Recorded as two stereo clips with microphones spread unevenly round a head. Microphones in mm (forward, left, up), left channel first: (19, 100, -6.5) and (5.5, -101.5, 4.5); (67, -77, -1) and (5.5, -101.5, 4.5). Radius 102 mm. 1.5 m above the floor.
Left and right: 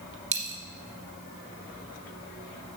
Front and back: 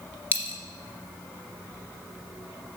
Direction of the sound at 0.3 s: 45° right.